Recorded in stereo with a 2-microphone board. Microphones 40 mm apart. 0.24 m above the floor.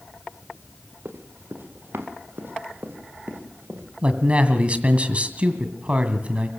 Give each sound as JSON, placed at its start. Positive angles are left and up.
{"t": 1.1, "sound": "running footsteps", "side_deg": -70, "distance_m": 3.0}
{"t": 4.0, "sound": "a man speaking", "side_deg": -35, "distance_m": 2.0}